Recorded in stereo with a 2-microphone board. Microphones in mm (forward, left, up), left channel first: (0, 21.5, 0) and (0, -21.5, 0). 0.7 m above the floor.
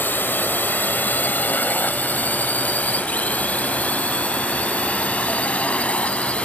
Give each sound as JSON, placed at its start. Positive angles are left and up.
{"t": 0.0, "sound": "a drone", "side_deg": 50}